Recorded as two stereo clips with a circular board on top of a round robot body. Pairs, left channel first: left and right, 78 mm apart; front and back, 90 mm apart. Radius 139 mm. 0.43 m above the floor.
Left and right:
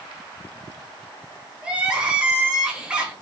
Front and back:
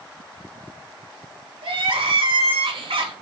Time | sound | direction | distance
1.6 | crying | 165° right | 1.4 m